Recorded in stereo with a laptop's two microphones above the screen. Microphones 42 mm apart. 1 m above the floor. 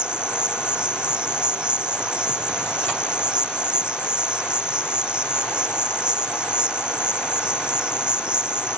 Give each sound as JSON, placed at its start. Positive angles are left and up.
{"t": 0.0, "sound": "an insect", "side_deg": -20}